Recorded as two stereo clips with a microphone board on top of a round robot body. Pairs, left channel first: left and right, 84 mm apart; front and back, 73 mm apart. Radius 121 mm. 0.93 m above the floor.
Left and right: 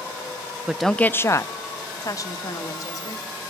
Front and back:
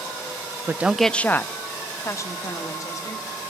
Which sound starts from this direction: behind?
A woman speaking, at 0.7 s.